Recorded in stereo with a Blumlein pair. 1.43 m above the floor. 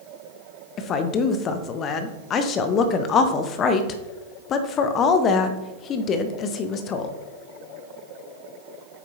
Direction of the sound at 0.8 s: 30° left.